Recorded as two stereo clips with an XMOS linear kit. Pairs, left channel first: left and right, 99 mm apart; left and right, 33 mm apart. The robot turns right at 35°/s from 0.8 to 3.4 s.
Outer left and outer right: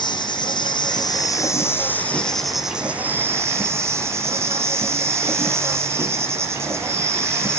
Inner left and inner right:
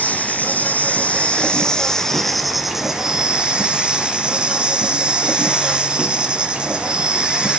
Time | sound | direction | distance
0.0 | an insect | 120° left | 1.8 m